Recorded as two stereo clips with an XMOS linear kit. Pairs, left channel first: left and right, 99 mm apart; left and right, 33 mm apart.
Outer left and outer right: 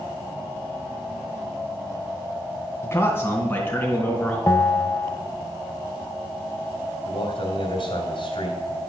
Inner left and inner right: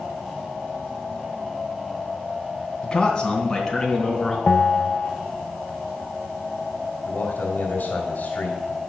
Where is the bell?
25° left (ahead or behind), 0.7 m.